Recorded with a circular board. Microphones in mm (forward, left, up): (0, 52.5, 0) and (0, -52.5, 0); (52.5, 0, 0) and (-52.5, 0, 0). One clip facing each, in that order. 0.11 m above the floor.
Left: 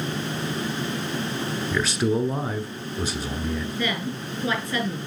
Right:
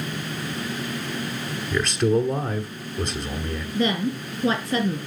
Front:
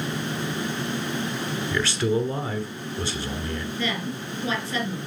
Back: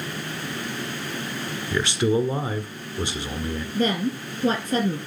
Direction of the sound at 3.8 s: 155° right.